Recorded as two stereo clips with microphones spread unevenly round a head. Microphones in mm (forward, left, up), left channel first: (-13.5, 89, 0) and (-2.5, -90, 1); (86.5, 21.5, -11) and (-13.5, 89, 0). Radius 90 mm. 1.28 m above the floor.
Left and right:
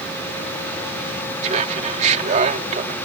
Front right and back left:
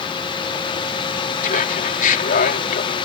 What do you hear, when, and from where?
1.4 s laughter: 30° right